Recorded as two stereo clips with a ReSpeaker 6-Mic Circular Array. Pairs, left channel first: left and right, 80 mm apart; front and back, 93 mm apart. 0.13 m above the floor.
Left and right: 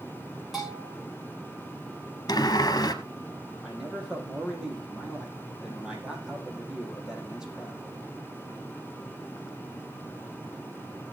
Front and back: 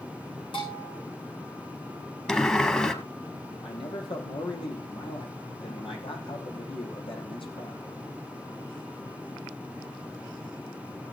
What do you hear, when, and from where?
0.5 s a bell: 5° right, 9.5 m
2.3 s a sliding door: 75° left, 1.7 m
3.6 s a man speaking: 10° right, 4 m